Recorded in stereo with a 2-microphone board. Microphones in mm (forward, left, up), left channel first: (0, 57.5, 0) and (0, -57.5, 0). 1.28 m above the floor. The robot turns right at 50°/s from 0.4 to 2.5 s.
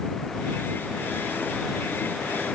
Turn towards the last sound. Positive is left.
No sound to turn to.